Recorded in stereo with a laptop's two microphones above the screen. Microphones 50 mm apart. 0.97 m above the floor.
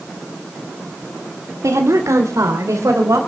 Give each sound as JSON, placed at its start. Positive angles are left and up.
{"t": 1.6, "sound": "a woman speaking", "side_deg": -80, "distance_m": 2.0}